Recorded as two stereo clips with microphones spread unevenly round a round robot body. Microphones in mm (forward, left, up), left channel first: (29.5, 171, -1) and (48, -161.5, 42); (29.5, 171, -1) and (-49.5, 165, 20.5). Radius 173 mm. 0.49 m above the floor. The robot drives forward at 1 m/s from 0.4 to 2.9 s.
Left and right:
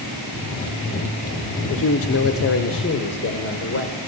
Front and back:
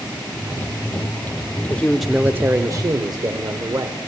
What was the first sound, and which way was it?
A man speaking, 55° left.